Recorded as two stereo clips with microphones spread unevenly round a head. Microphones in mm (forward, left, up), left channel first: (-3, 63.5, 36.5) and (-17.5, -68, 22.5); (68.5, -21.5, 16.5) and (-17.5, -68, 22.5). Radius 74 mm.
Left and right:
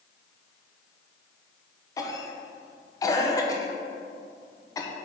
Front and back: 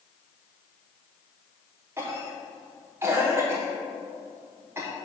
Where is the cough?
145° left, 0.9 m.